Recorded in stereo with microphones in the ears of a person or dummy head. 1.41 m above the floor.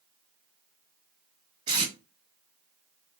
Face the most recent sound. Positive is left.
turn(degrees=-30)  # may be behind; listen again after turning